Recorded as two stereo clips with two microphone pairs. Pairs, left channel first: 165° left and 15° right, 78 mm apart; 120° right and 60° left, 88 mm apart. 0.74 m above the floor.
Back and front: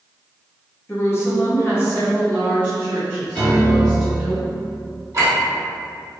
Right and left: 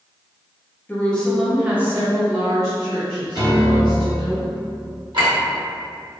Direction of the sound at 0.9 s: 165° right.